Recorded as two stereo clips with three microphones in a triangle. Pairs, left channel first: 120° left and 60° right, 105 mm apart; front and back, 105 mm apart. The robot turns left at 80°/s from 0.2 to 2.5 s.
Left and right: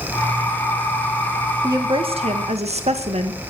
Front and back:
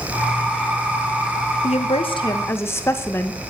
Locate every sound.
1.6 s a woman speaking: straight ahead, 1.7 m; by 3.4 s 65° right, 1.7 m